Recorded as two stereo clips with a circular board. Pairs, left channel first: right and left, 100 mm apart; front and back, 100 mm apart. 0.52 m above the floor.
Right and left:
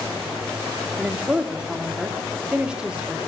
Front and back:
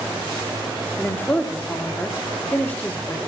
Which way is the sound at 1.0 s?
30° left.